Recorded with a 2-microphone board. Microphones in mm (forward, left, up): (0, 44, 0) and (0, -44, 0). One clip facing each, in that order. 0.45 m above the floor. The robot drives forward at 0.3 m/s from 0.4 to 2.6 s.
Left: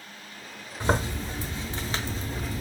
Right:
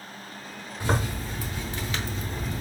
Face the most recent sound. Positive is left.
turn(degrees=40)  # may be behind; listen again after turning